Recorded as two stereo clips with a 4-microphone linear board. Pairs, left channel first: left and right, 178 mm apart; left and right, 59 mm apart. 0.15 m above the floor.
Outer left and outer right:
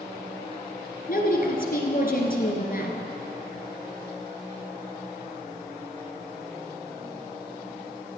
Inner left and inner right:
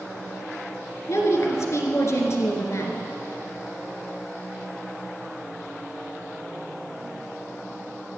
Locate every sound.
1.1 s a woman speaking: 55° left (ahead or behind), 1.8 m